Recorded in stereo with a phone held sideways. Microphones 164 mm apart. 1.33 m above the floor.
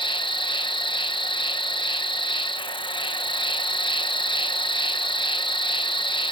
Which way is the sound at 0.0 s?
30° left (ahead or behind).